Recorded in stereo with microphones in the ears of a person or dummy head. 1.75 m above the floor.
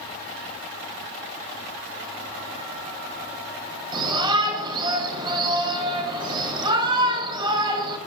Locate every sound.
3.9 s a shout: 30° right (ahead or behind), 4.5 m